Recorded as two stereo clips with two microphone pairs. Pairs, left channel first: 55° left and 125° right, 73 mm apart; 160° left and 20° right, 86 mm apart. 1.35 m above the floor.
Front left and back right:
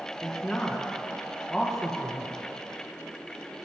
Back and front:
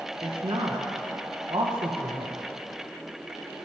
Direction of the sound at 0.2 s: 25° right.